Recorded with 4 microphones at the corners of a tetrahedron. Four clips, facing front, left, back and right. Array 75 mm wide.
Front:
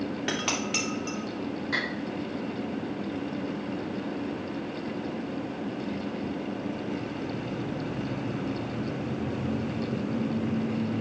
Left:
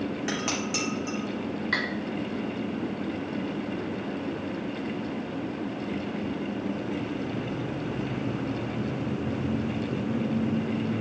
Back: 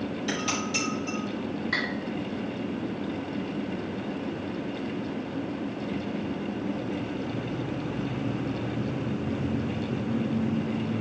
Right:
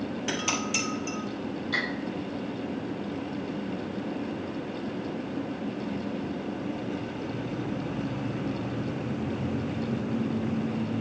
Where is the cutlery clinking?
90° left, 3 m.